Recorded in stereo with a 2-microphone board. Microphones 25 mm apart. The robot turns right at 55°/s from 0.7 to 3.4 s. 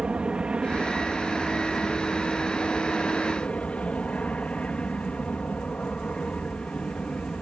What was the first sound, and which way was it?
An aircraft, 55° right.